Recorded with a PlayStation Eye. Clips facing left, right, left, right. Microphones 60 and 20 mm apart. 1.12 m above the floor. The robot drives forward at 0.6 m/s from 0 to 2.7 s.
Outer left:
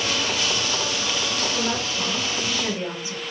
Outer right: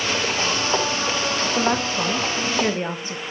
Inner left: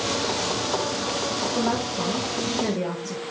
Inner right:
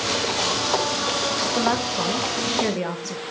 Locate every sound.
1.6 s a woman speaking: 60° right (ahead or behind), 1.2 m; by 3.2 s 45° right (ahead or behind), 1.5 m